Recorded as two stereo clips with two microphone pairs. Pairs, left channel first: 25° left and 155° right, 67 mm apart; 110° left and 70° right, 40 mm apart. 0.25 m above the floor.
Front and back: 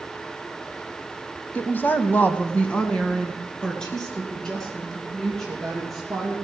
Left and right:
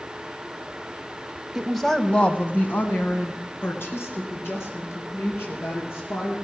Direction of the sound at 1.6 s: 5° right.